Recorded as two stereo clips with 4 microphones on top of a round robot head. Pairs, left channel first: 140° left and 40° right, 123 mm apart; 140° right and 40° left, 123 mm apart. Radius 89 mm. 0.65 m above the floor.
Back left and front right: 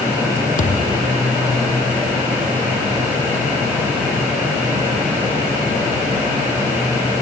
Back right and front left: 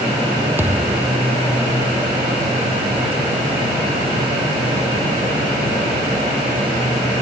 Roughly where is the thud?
Behind left.